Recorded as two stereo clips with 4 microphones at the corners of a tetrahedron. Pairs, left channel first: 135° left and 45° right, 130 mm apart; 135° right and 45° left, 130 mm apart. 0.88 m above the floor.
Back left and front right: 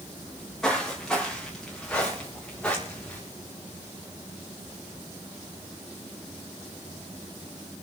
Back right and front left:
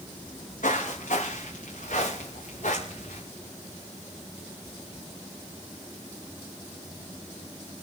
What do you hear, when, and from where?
0.3 s footsteps: 140° right, 6.5 m; by 3.2 s 145° right, 5 m